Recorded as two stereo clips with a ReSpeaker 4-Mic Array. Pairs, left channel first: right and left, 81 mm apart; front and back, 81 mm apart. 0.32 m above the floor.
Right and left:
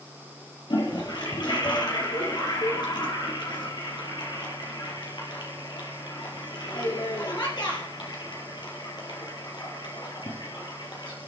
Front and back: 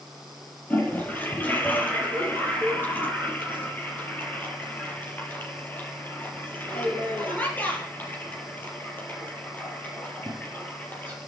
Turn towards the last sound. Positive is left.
turn(degrees=-70)